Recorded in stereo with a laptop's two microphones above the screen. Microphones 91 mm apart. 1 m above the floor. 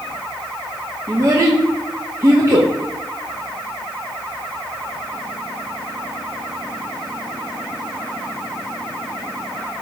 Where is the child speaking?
35° right (ahead or behind), 0.6 m.